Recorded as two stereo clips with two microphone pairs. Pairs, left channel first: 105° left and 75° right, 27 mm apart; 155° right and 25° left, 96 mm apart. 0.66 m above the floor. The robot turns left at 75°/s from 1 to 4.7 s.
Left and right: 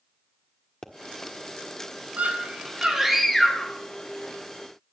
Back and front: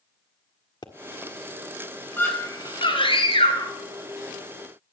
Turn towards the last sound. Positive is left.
turn(degrees=85)